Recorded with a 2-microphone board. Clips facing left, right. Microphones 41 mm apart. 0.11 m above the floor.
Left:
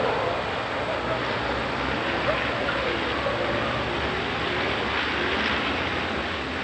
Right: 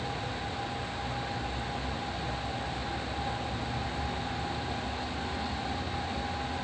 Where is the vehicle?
85° left; by 6.6 s 75° left (ahead or behind).